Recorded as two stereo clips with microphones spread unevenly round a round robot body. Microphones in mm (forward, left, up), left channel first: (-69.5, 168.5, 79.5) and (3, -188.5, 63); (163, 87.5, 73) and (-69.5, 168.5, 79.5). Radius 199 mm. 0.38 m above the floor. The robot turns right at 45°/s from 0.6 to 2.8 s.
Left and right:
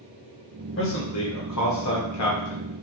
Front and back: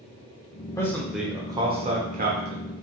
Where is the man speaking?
55° left, 1.0 m; by 2.7 s 140° left, 1.0 m.